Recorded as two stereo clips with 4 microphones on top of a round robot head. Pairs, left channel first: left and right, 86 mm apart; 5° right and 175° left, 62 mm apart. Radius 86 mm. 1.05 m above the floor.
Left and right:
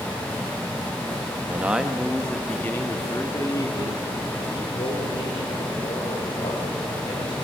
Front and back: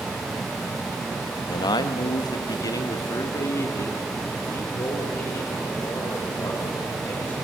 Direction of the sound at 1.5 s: 15° right.